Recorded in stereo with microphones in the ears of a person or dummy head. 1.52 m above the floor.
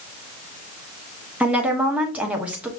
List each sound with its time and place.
1.4 s a woman speaking: 10° right (ahead or behind), 0.9 m